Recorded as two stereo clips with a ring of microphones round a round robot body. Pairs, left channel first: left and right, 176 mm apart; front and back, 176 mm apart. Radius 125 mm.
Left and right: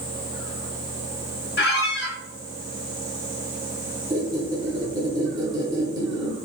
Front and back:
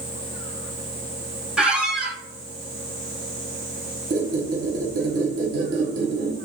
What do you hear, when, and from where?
1.6 s a squeak: 95° left, 0.9 m
4.1 s a squeak: 160° right, 0.8 m